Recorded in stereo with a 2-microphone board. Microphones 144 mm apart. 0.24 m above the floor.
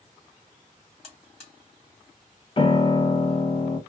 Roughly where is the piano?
Left.